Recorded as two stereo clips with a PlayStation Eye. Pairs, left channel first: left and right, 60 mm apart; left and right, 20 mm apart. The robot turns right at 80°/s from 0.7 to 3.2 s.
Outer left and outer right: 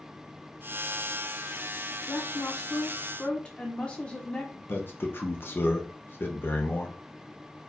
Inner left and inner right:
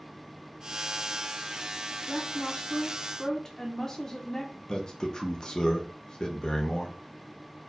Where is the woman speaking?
70° left, 0.7 m; by 4.6 s 160° left, 0.7 m.